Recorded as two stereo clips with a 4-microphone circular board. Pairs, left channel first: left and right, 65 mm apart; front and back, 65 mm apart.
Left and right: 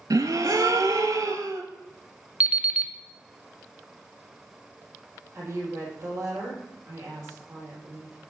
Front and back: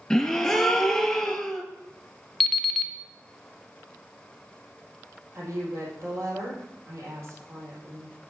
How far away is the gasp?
About 0.7 m.